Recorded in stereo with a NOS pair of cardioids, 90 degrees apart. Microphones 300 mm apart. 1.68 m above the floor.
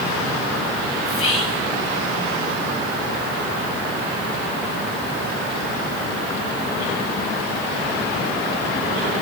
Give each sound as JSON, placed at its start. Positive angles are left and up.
{"t": 1.1, "sound": "whispering", "azimuth_deg": 50, "distance_m": 3.5}